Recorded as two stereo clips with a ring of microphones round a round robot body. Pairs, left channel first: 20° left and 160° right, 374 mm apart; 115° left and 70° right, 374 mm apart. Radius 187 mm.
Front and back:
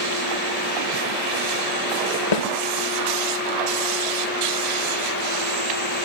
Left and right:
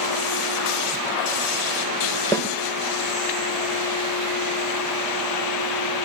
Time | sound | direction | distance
2.3 | a snare drum | 30° left | 2 m